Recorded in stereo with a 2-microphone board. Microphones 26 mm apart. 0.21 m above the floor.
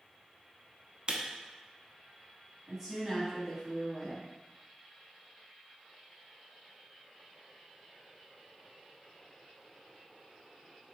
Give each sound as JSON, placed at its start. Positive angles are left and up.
{"t": 1.1, "sound": "a camera shutter", "side_deg": -40, "distance_m": 0.7}
{"t": 2.7, "sound": "a woman speaking", "side_deg": -15, "distance_m": 1.4}